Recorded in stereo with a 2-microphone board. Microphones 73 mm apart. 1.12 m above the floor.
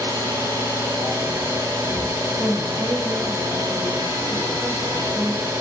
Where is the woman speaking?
35° right (ahead or behind), 1.0 m.